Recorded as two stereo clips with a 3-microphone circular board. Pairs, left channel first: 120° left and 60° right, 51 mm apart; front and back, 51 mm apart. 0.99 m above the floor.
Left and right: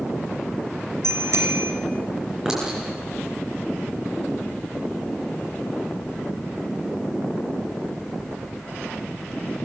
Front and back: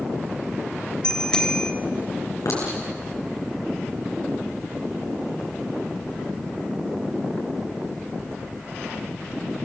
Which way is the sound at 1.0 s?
70° right.